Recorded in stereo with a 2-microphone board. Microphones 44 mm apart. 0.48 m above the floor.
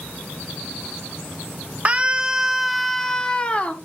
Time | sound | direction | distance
1.9 | a scream | 30° right (ahead or behind) | 1.2 m